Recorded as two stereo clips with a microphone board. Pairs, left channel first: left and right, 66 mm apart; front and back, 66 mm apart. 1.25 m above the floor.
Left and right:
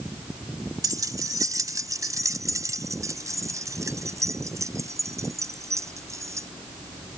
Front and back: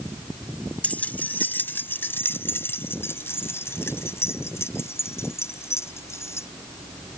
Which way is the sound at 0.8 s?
70° right.